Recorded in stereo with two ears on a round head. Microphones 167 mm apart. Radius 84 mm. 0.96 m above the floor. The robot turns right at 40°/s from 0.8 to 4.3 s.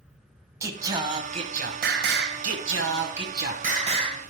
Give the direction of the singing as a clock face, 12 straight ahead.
5 o'clock.